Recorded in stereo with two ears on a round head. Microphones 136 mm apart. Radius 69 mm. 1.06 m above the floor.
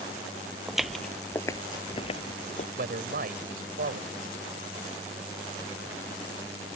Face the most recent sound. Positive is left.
turn(degrees=-65)  # may be behind; listen again after turning